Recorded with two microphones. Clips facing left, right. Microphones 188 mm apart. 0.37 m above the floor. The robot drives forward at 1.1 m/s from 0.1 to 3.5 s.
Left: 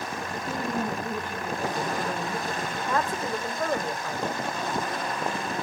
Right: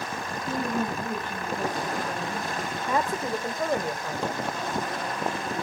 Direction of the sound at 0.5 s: 15° left (ahead or behind).